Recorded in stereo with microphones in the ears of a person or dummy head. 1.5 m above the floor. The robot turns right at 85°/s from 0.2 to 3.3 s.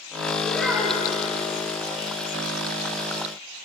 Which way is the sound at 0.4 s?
165° left.